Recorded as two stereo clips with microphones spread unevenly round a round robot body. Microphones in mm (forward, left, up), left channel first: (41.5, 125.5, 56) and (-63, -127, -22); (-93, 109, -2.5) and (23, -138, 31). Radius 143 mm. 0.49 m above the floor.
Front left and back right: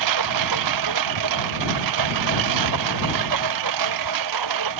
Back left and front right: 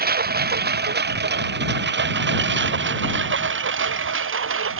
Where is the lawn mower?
120° right; by 4.8 s 110° right.